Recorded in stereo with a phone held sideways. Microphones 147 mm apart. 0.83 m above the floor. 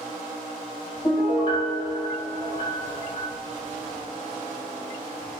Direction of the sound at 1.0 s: 30° left (ahead or behind).